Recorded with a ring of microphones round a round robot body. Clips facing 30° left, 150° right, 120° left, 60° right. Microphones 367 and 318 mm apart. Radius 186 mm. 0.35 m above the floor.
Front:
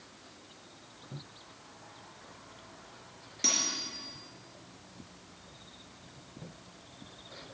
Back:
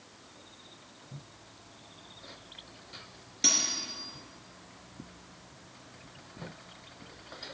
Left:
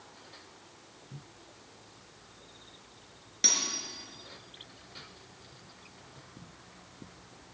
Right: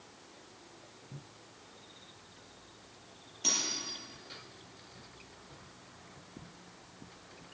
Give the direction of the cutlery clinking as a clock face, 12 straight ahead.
8 o'clock.